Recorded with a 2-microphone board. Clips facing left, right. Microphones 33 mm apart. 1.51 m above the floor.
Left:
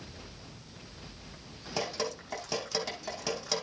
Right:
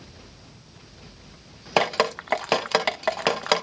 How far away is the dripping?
About 0.7 m.